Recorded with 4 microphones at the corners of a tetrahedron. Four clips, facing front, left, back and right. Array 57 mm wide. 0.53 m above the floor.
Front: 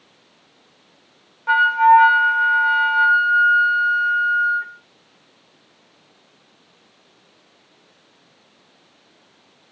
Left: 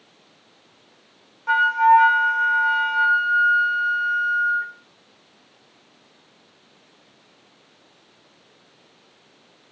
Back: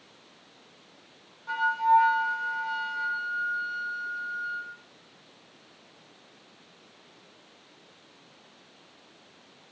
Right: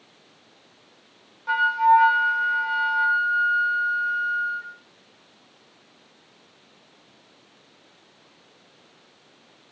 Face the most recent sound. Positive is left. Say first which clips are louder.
# left 3 dB, front 10 dB
turn(degrees=15)